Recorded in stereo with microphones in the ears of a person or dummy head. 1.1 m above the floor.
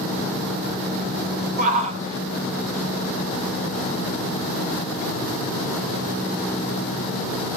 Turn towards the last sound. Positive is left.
turn(degrees=75)  # may be behind; listen again after turning